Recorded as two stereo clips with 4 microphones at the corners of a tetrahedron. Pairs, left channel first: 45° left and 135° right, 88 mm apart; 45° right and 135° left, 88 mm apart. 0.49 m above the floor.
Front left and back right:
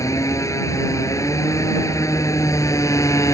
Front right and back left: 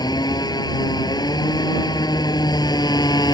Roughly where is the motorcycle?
Ahead.